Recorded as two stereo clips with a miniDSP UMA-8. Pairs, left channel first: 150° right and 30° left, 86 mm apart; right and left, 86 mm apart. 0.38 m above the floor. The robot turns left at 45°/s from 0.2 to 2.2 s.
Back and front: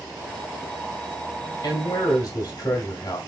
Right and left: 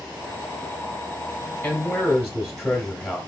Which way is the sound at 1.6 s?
145° right.